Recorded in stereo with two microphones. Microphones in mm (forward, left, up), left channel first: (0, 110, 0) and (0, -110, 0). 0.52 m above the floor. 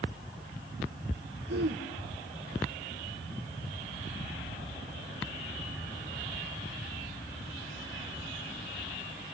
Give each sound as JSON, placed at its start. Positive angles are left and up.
{"t": 1.5, "sound": "throat clearing", "side_deg": -70, "distance_m": 6.0}